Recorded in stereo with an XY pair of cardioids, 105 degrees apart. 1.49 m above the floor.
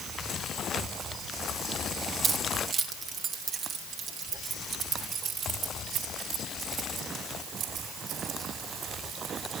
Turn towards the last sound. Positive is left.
turn(degrees=-75)